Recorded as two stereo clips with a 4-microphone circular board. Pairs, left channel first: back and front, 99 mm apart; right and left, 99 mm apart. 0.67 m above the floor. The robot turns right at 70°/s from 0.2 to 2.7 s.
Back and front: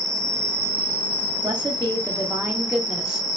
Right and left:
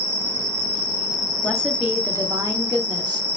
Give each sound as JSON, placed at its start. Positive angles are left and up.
{"t": 0.0, "sound": "an insect", "azimuth_deg": 90, "distance_m": 1.8}
{"t": 1.4, "sound": "a woman speaking", "azimuth_deg": -10, "distance_m": 1.1}